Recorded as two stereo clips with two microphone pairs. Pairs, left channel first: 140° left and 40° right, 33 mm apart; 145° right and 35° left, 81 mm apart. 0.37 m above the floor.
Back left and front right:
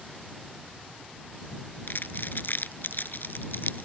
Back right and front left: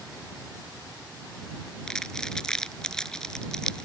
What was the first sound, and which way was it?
Crumpling, 135° left.